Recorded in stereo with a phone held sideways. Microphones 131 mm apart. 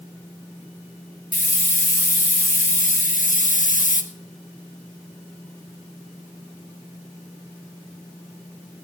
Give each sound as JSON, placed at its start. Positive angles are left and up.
{"t": 1.3, "sound": "a hiss", "side_deg": 80, "distance_m": 1.4}